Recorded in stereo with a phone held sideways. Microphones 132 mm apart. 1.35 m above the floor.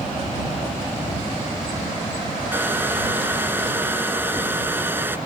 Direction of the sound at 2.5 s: 15° right (ahead or behind).